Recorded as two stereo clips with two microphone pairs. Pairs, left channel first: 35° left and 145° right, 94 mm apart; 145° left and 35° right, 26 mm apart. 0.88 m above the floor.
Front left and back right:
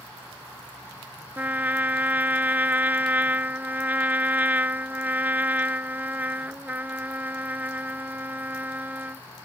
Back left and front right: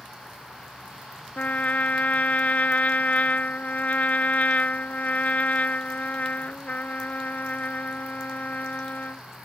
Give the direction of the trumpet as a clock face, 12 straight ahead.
7 o'clock.